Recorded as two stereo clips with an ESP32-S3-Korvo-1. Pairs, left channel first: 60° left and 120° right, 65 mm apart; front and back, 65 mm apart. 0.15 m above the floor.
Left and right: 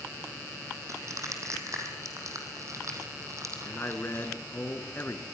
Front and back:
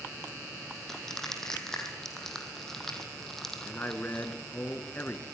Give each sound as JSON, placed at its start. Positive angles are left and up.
{"t": 0.9, "sound": "crushing", "azimuth_deg": -80, "distance_m": 3.5}
{"t": 3.6, "sound": "a man speaking", "azimuth_deg": 40, "distance_m": 2.0}